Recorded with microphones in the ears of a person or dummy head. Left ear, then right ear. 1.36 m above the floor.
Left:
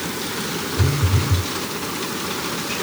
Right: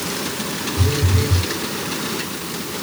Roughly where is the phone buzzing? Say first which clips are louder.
Right 3 dB; left.